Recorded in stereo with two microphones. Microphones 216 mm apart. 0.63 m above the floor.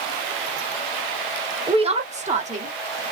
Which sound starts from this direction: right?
A woman speaking, at 1.7 s.